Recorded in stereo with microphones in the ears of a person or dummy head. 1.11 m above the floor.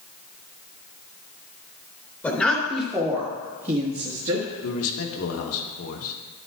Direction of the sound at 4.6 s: 75° left (ahead or behind).